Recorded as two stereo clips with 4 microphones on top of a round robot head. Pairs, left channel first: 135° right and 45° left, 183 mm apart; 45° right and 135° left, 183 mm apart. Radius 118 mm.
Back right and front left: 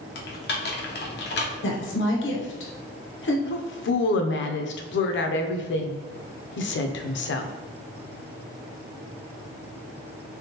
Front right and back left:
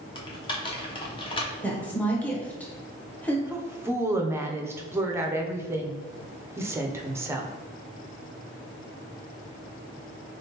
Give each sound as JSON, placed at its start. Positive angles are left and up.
{"t": 0.1, "sound": "typing on a keyboard", "azimuth_deg": -110, "distance_m": 0.8}
{"t": 1.6, "sound": "a woman speaking", "azimuth_deg": -125, "distance_m": 0.9}
{"t": 3.5, "sound": "a woman speaking", "azimuth_deg": -150, "distance_m": 0.6}